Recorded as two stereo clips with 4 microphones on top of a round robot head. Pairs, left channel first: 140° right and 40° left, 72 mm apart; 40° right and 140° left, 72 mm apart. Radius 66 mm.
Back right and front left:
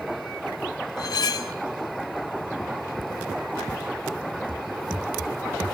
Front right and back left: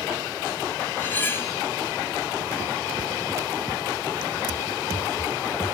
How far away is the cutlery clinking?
About 0.5 m.